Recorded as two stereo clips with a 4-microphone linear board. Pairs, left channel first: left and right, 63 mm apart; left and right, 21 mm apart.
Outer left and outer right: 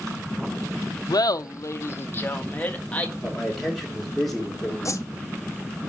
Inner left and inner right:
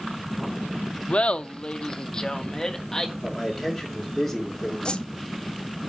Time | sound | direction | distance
1.1 | laughter | 80° left | 0.6 m
3.2 | a man speaking | 5° left (ahead or behind) | 3 m
4.8 | a whoosh | 50° left (ahead or behind) | 0.7 m